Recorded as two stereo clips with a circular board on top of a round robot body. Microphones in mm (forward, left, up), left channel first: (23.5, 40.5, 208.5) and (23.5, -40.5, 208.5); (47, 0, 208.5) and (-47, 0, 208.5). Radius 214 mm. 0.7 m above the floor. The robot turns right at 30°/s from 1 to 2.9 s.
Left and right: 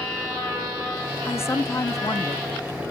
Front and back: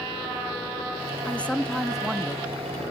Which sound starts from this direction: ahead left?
A man speaking, at 1.2 s.